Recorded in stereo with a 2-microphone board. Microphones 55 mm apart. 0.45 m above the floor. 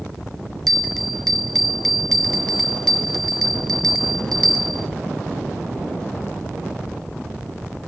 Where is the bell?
5° left (ahead or behind), 0.7 m.